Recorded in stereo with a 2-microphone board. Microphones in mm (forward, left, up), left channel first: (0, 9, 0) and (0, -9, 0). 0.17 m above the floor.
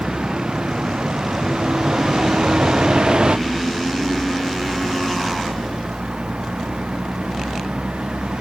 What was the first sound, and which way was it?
A vehicle, 60° right (ahead or behind).